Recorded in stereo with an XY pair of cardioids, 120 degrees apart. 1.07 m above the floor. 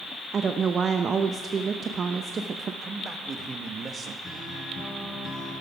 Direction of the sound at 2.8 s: 35° right.